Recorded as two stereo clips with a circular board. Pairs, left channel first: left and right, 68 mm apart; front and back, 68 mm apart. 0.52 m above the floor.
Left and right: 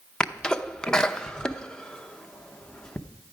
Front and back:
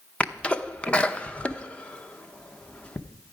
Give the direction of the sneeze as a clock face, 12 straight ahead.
11 o'clock.